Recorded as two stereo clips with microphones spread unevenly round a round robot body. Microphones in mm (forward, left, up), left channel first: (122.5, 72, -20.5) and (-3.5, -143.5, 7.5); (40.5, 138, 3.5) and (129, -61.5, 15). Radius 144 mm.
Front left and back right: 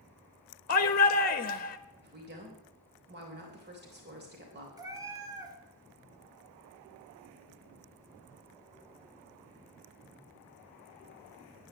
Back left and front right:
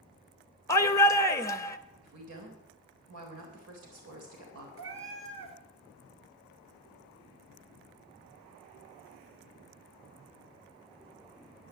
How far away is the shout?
About 0.7 m.